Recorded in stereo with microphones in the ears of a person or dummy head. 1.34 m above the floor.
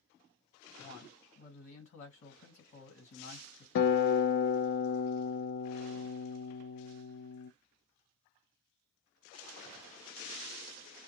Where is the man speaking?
55° left (ahead or behind), 1.5 m.